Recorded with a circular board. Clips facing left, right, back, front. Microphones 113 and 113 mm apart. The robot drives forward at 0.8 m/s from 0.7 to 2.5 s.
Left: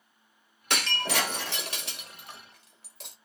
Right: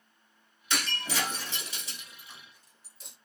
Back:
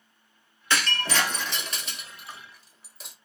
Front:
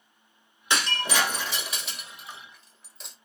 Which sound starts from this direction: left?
Breaking glass, at 0.7 s.